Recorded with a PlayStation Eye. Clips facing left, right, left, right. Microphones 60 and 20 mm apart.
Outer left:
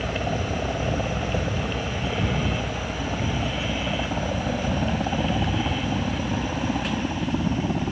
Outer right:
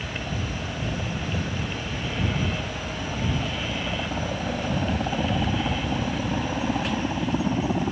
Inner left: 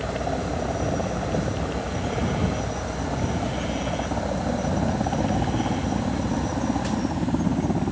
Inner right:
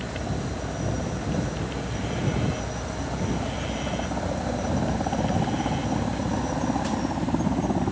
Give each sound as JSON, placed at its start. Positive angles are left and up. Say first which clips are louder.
{"t": 0.0, "sound": "a helicopter", "louder": "outer left 5 dB, inner left 4 dB", "side_deg": 40}